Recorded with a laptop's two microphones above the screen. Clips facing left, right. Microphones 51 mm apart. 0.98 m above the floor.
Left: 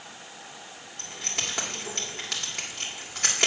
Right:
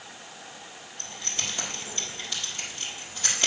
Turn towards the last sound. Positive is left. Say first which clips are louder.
# left 2 dB
turn(degrees=85)